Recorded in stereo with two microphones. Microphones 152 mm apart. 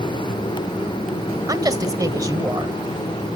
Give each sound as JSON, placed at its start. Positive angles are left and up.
{"t": 1.5, "sound": "a woman speaking", "side_deg": -25, "distance_m": 1.3}